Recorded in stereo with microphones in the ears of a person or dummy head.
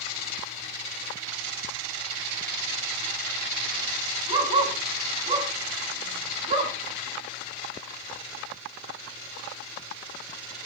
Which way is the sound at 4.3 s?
25° right (ahead or behind).